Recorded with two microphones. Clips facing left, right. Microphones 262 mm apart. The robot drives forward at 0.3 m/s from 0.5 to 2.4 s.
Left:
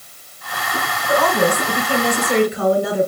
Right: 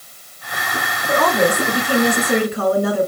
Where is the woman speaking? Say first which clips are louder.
Even; 45° right (ahead or behind), 2.5 m.